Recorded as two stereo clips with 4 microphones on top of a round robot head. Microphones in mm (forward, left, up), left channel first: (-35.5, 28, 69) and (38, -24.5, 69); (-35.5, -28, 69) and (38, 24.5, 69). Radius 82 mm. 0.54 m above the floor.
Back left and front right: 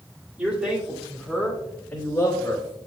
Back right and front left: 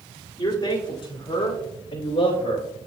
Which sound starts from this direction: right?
A man speaking, at 0.4 s.